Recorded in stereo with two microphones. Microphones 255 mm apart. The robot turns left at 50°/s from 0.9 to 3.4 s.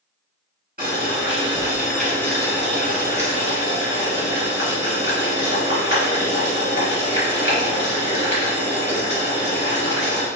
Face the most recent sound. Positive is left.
turn(degrees=110)